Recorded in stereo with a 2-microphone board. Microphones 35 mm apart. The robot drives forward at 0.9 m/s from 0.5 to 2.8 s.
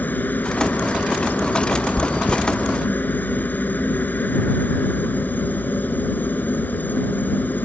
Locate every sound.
0.0 s a helicopter: 60° left (ahead or behind); by 7.7 s 65° left (ahead or behind)
2.0 s chewing: 80° right; by 2.4 s 85° right